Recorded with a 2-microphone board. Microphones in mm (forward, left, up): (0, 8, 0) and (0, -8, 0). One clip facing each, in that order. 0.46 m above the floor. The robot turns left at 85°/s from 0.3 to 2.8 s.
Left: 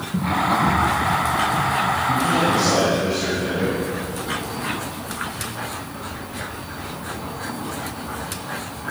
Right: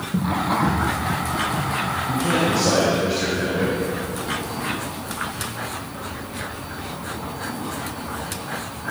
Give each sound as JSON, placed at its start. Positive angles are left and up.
{"t": 0.1, "sound": "running footsteps", "side_deg": -55, "distance_m": 3.5}
{"t": 2.1, "sound": "a man speaking", "azimuth_deg": -100, "distance_m": 7.5}